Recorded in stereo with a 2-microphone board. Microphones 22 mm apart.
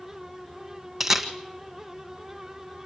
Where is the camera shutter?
15° right (ahead or behind), 1.8 m.